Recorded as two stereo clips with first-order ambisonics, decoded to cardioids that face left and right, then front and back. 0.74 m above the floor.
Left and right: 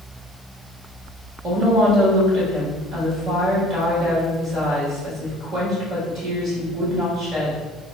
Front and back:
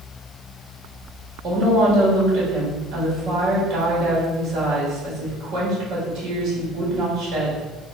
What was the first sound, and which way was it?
A woman speaking, 130° right.